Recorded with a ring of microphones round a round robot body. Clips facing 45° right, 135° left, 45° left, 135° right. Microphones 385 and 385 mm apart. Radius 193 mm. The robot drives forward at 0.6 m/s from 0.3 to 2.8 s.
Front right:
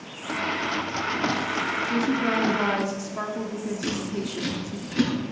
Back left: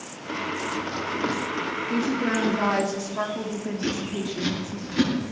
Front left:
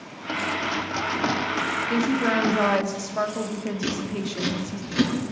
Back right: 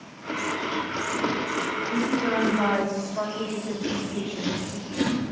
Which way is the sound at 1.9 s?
35° left.